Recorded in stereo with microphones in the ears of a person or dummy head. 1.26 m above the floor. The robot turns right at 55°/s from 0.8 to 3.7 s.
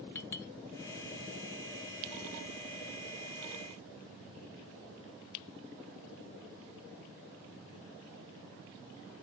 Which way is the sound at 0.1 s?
15° left (ahead or behind).